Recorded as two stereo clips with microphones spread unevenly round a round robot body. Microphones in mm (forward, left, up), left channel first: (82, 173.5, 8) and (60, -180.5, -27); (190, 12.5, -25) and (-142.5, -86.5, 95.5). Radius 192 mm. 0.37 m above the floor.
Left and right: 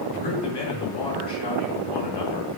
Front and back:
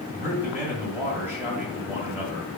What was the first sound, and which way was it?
A man speaking, 105° left.